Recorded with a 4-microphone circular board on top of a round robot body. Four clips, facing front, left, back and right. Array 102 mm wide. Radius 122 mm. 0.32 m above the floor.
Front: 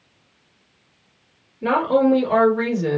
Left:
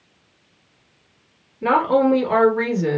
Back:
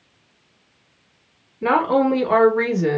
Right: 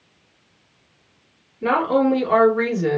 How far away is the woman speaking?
About 1.6 m.